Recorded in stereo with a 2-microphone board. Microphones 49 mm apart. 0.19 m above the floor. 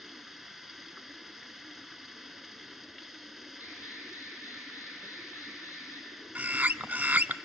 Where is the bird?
40° right (ahead or behind), 0.6 m.